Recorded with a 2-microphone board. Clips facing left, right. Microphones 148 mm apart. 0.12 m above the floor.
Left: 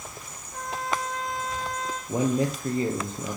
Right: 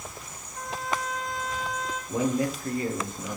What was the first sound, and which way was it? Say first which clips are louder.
A trumpet: left 1 dB; 75° left (ahead or behind).